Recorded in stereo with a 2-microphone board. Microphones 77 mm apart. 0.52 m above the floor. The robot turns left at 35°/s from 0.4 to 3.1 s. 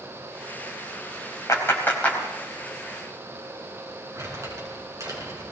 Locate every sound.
1.5 s a clap: 40° left (ahead or behind), 3 m; by 2.2 s 15° left (ahead or behind), 3 m
4.2 s crumpling: 45° right (ahead or behind), 6.5 m